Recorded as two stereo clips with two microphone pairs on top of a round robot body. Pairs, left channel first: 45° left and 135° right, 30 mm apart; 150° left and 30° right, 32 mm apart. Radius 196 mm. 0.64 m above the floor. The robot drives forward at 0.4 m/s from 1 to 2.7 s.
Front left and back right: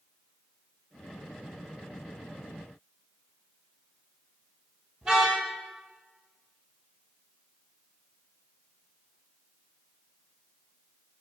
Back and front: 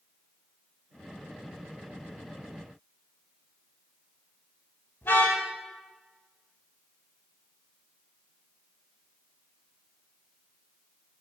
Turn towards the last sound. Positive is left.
turn(degrees=155)